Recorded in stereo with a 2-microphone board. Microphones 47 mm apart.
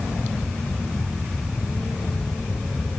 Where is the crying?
I don't hear crying.